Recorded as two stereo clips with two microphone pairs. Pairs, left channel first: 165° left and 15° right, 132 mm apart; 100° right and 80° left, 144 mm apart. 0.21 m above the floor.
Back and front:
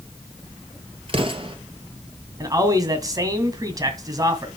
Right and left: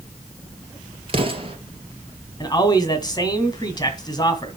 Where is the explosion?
30° left, 2.5 m.